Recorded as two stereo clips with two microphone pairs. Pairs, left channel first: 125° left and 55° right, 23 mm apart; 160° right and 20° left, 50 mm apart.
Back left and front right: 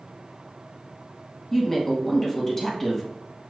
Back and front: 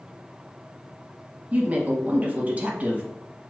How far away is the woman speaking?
About 1.1 m.